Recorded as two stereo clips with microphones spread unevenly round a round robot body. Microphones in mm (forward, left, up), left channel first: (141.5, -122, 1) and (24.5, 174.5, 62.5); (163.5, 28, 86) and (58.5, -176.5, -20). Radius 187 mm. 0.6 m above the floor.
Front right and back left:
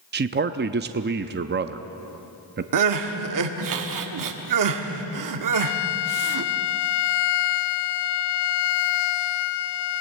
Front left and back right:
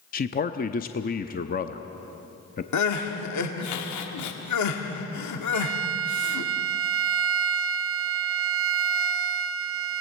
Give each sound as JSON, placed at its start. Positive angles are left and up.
{"t": 0.1, "sound": "a man speaking", "azimuth_deg": 125, "distance_m": 0.6}
{"t": 2.7, "sound": "crying", "azimuth_deg": 90, "distance_m": 1.6}
{"t": 5.5, "sound": "a violin", "azimuth_deg": -75, "distance_m": 0.6}